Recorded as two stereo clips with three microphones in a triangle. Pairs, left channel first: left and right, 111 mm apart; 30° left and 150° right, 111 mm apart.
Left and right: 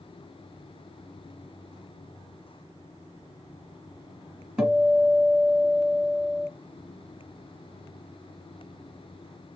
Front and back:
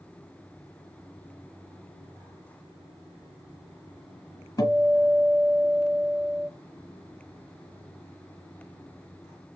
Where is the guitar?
10° right, 1.1 m.